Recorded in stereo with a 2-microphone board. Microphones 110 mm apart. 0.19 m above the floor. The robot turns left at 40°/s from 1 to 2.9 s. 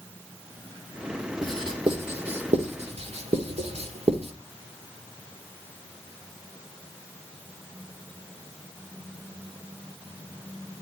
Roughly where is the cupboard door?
I don't hear a cupboard door.